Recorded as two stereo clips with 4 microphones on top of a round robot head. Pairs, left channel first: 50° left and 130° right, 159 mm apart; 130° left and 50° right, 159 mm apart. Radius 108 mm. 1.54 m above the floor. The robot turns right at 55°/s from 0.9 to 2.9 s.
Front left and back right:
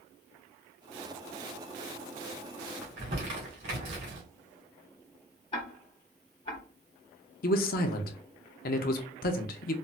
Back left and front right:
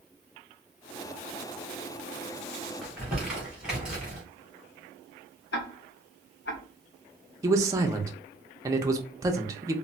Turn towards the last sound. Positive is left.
turn(degrees=20)